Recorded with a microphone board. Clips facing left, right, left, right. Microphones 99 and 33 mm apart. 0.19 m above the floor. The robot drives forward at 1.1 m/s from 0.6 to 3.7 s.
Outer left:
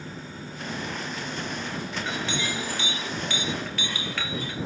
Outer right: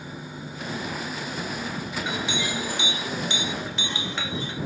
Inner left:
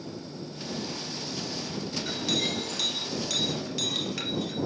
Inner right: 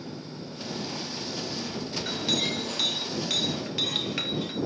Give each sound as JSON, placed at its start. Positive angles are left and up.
{"t": 2.0, "sound": "a clink", "side_deg": -15, "distance_m": 5.0}